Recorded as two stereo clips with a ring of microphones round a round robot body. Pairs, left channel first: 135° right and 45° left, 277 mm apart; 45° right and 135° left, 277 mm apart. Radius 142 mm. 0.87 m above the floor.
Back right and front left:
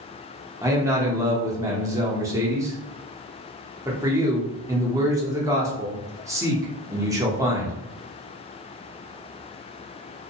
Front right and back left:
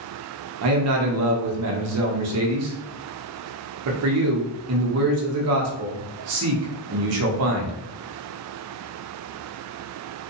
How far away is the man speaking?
About 0.8 m.